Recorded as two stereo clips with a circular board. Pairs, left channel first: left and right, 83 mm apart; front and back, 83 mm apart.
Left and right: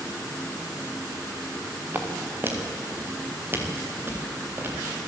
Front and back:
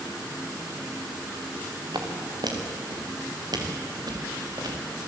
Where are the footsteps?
155° right, 4.5 m; by 4.8 s 150° right, 6 m.